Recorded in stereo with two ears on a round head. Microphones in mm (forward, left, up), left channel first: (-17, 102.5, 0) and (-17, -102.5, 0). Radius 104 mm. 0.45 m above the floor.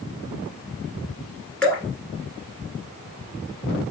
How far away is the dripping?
About 1.9 m.